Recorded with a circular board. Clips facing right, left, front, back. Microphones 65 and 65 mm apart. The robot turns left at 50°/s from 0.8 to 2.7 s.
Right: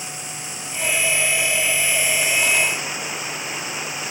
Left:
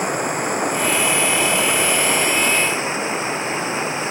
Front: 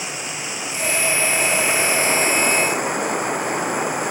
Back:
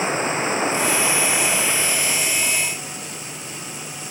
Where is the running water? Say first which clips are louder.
Left 14 dB, back 8 dB; 125° left; by 4.1 s 30° left.